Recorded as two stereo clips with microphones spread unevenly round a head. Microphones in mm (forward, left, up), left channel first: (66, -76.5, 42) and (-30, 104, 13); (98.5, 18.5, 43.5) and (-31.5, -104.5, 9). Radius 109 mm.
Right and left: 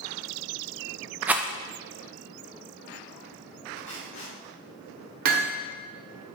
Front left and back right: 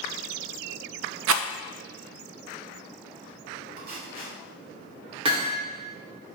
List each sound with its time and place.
1.3 s a rattle: 155° right, 0.6 m
3.8 s tape being pulled: 100° right, 3.5 m
5.2 s hammering: 155° left, 1.3 m